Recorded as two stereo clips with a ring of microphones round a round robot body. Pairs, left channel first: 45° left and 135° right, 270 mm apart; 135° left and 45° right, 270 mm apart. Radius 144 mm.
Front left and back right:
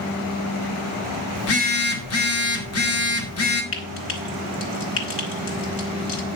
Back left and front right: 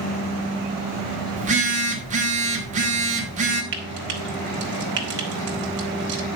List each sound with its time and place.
1.4 s a phone buzzing: 15° left, 2 m
3.7 s frying: 5° left, 2.5 m